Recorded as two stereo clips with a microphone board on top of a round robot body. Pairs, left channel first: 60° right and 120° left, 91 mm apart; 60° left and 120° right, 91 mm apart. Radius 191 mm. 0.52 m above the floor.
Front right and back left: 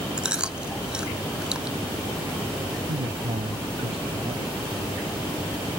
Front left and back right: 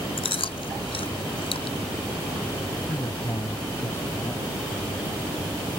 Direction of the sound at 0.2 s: 40° left.